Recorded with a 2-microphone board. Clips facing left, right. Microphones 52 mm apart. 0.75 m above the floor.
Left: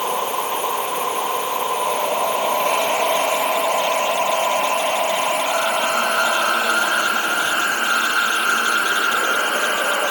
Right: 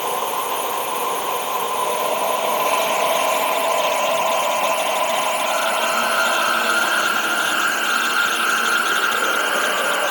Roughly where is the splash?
I don't hear a splash.